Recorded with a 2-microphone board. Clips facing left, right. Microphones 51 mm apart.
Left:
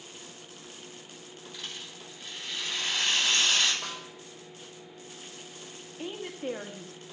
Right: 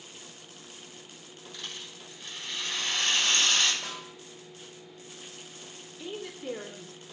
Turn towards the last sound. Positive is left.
turn(degrees=50)  # may be behind; listen again after turning